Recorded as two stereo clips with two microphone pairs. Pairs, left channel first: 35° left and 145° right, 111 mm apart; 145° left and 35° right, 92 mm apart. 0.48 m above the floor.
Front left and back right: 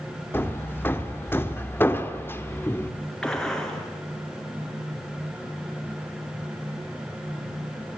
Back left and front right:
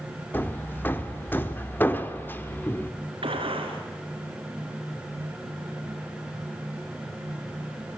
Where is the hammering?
90° left, 1.2 m.